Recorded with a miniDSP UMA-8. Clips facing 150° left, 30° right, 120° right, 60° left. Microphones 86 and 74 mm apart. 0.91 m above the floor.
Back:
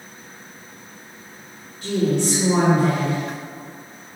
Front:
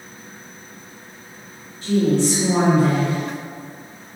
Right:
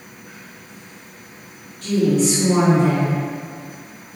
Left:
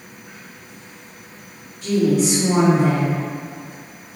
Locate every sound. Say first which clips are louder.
1.8 s a woman speaking: front 3 dB, even; 125° left, 0.8 m